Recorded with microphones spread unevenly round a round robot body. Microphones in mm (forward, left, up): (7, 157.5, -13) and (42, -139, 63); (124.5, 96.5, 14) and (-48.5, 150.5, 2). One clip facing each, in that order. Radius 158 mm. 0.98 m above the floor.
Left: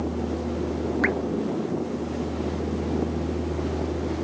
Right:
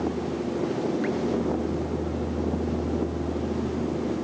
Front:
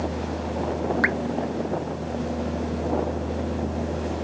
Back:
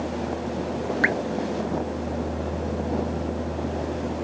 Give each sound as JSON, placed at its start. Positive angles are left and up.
{"t": 1.0, "sound": "dripping", "azimuth_deg": 100}